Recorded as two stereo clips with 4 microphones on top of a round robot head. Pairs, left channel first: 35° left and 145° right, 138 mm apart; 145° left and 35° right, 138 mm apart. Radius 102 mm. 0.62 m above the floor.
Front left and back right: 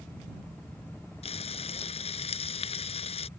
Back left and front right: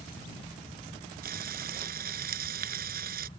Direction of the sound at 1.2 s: 15° right.